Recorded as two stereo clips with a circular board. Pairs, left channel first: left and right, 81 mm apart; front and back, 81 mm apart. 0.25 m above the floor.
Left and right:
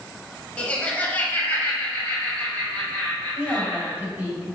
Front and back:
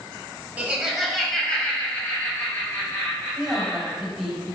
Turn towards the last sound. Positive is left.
turn(degrees=-100)